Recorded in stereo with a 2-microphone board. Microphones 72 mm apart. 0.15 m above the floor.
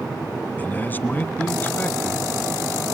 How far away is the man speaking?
About 1.2 m.